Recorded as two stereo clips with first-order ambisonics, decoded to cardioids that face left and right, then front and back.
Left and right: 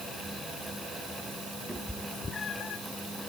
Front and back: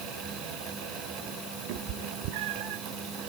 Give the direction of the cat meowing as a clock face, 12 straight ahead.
6 o'clock.